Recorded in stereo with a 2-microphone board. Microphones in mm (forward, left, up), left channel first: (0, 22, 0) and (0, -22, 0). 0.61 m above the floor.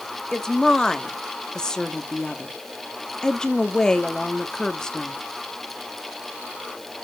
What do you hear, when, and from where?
0.3 s a woman speaking: 15° left (ahead or behind), 0.9 m